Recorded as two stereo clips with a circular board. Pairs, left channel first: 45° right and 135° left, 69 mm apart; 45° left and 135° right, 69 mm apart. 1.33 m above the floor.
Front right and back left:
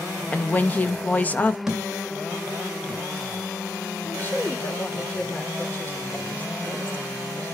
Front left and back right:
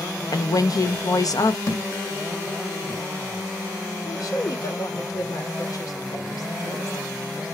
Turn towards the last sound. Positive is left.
turn(degrees=20)